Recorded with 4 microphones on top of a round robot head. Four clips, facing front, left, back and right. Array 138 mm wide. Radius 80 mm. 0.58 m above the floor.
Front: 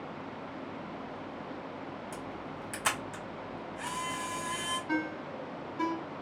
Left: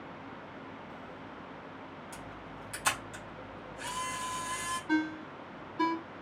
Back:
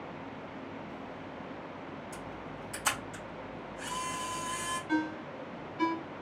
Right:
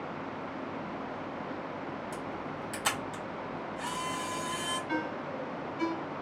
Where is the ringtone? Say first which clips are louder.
Left 2 dB, back 3 dB; 40° left, 1.1 m.